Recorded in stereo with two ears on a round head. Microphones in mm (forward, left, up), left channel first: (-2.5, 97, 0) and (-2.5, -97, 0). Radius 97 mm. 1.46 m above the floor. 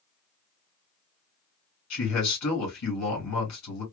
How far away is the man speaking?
About 2.5 m.